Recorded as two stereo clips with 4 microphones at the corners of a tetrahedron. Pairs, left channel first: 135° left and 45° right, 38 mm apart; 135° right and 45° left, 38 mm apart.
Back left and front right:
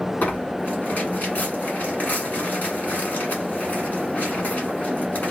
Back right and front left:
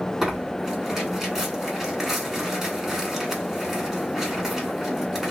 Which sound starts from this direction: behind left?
Tearing paper, at 0.2 s.